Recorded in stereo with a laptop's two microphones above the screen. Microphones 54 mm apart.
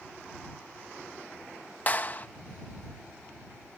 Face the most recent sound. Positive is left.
turn(degrees=35)  # may be behind; listen again after turning